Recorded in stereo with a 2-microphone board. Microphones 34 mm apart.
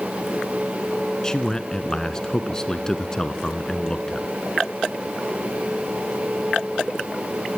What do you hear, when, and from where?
1.2 s a man speaking: 20° left (ahead or behind), 1.3 m